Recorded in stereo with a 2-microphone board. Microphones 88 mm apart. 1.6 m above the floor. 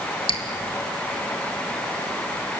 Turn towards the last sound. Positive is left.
turn(degrees=80)